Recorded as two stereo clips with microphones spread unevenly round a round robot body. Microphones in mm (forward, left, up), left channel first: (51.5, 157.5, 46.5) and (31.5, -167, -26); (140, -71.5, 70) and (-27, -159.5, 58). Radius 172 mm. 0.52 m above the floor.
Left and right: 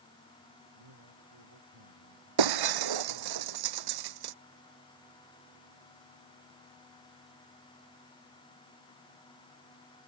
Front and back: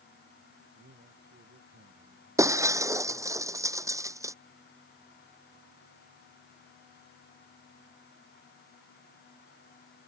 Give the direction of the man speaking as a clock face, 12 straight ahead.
4 o'clock.